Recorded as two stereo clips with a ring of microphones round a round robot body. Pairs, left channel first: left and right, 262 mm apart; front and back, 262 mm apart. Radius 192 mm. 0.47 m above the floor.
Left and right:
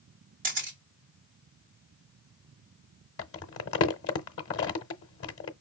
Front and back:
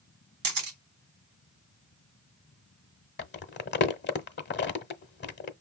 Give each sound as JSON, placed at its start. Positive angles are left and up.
{"t": 0.4, "sound": "a camera shutter", "azimuth_deg": -155, "distance_m": 2.0}
{"t": 3.2, "sound": "crumpling", "azimuth_deg": 50, "distance_m": 1.0}